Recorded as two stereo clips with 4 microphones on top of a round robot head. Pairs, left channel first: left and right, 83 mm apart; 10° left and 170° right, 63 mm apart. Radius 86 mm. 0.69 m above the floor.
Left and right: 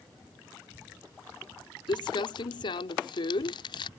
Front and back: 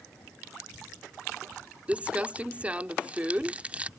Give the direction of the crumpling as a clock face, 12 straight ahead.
8 o'clock.